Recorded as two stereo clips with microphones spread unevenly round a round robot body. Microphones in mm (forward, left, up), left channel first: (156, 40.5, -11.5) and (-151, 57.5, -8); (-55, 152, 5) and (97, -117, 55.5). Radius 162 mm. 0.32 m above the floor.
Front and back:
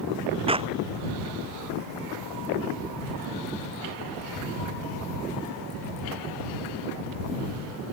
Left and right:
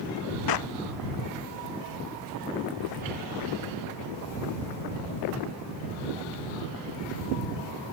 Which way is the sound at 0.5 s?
105° left.